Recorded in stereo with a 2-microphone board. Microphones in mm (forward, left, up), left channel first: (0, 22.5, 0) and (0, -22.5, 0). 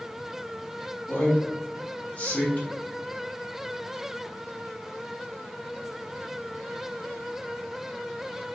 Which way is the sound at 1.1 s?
35° left (ahead or behind).